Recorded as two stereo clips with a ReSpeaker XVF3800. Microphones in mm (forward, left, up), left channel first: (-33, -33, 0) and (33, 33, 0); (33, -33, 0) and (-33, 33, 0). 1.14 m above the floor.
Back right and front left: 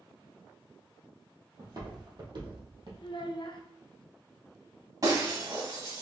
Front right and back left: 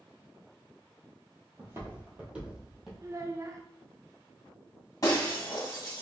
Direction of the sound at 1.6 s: 80° left.